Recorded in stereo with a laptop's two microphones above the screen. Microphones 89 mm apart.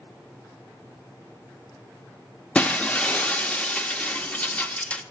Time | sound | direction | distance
2.5 | breaking glass | 15° left (ahead or behind) | 0.6 m